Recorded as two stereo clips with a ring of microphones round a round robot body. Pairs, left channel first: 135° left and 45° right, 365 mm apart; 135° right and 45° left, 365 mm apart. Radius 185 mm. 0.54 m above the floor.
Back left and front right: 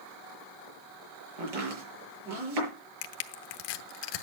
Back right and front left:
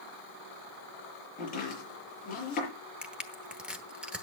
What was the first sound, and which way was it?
Chopping, 65° right.